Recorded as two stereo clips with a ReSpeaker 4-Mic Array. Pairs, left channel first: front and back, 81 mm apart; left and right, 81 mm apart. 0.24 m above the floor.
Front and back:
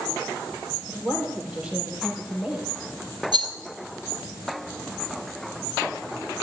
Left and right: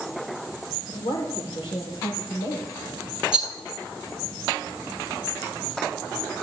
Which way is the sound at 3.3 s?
170° right.